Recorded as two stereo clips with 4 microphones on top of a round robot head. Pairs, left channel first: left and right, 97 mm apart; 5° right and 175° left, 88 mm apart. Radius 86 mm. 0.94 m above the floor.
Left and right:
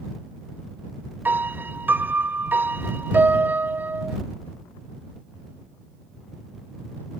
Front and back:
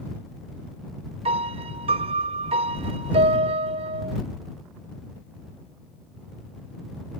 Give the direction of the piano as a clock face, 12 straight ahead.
5 o'clock.